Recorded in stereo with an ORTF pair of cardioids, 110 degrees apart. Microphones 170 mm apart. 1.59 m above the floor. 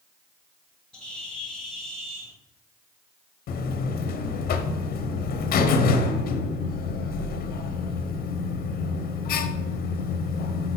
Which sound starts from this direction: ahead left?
A buzzer, at 3.5 s.